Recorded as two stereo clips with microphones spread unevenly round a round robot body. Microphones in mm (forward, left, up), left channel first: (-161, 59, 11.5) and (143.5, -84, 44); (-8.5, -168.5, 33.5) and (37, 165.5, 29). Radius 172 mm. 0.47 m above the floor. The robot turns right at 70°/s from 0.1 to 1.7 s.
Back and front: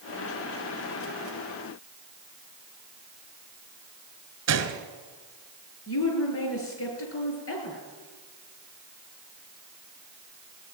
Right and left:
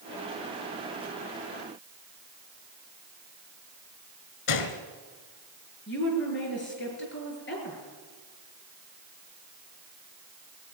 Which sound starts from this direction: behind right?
A woman speaking, at 5.9 s.